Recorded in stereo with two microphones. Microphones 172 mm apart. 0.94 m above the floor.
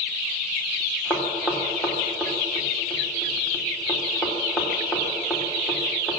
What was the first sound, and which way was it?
Knocking, 5° right (ahead or behind).